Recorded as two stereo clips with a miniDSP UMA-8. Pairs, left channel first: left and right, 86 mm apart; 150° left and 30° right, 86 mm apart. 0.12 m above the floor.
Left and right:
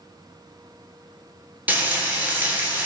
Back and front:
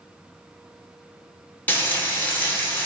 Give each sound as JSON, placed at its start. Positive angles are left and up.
{"t": 1.7, "sound": "frying", "azimuth_deg": -150, "distance_m": 0.8}